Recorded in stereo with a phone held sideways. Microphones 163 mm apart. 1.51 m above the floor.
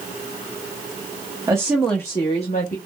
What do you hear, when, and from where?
1.5 s a woman speaking: 20° right (ahead or behind), 0.7 m; by 2.8 s 55° left (ahead or behind), 0.9 m